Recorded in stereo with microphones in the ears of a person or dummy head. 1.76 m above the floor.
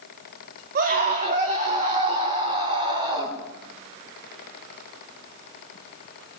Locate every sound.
0.8 s a scream: 50° right (ahead or behind), 4 m; by 3.4 s 35° right (ahead or behind), 7 m